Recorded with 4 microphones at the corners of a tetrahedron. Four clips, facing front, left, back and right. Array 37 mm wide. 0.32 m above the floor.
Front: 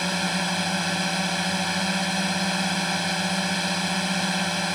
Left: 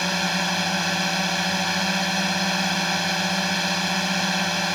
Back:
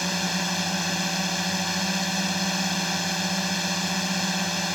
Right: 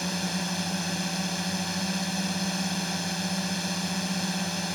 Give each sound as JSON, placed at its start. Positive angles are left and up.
{"t": 0.0, "sound": "a drone", "azimuth_deg": 70}